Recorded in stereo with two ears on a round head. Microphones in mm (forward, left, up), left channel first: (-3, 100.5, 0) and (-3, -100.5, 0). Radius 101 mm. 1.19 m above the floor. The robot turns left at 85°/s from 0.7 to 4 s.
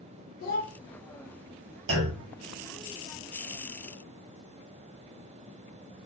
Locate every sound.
0.4 s a child speaking: 45° left (ahead or behind), 0.5 m; by 0.7 s 40° left (ahead or behind), 0.5 m
1.9 s a clunk: 50° right (ahead or behind), 1.3 m; by 2.2 s 30° right (ahead or behind), 1.3 m